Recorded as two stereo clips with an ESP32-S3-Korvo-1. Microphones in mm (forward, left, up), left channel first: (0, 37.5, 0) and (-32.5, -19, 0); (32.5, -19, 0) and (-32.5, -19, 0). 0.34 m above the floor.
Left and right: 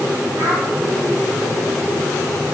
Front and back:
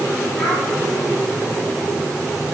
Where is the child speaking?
90° right, 9 m.